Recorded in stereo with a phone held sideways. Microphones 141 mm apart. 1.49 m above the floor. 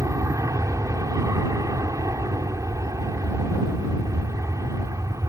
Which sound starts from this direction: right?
An aircraft, at 0.0 s.